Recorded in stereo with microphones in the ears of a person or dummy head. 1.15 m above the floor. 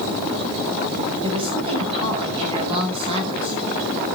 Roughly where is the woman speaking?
Right.